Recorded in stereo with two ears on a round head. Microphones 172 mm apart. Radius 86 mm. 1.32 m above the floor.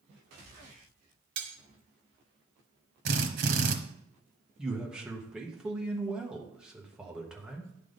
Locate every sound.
1.4 s cutlery clinking: 70° right (ahead or behind), 1.2 m
3.0 s a drill: 55° right (ahead or behind), 0.9 m
4.6 s a man speaking: 5° right (ahead or behind), 1.2 m